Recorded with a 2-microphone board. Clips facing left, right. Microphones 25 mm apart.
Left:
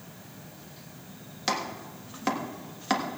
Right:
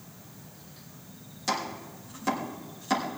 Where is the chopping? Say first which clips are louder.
Left 1 dB; 35° left (ahead or behind), 1.6 m.